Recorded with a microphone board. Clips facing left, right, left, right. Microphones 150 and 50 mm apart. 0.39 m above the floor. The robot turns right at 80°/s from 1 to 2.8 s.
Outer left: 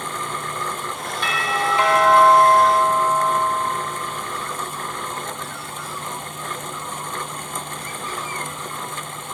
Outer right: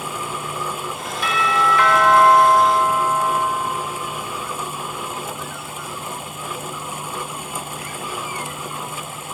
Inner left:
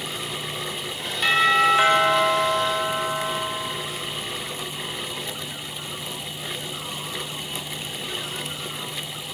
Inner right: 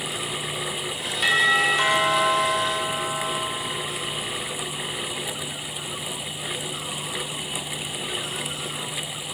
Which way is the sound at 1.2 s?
5° right.